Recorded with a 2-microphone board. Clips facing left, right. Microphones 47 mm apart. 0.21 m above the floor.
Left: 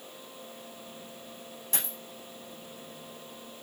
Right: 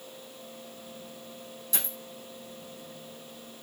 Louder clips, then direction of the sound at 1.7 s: Even; 50° left (ahead or behind).